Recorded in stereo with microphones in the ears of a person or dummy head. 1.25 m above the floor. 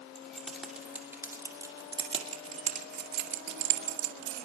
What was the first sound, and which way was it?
Keys jangling, centre (ahead or behind).